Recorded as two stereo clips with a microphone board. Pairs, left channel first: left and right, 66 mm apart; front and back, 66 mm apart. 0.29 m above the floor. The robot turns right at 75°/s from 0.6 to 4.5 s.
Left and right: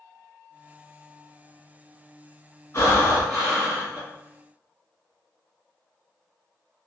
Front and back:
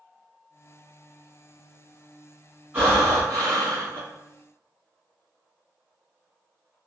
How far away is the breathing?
About 1.5 m.